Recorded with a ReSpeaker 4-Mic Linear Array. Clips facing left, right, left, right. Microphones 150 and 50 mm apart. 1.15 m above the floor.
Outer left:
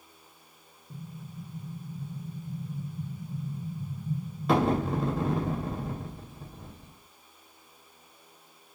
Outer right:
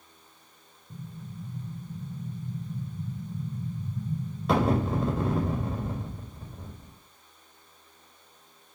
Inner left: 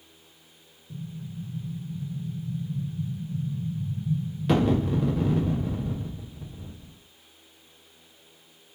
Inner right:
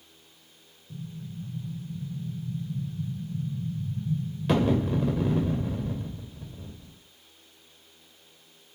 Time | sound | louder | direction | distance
0.9 | an explosion | outer right 1 dB, inner left 2 dB | centre (ahead or behind) | 2.0 m